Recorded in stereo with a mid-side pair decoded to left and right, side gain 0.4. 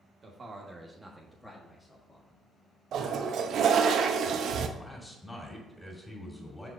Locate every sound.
0.2 s a man speaking: 50° right, 1.3 m; by 2.4 s 30° left, 2.0 m
2.9 s a toilet flushing: 70° right, 0.6 m
4.8 s a man speaking: 15° left, 2.5 m